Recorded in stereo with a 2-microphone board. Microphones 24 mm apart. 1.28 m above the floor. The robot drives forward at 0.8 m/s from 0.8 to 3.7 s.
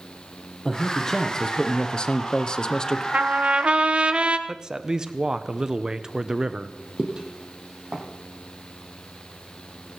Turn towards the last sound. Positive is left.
turn(degrees=-45)  # may be behind; listen again after turning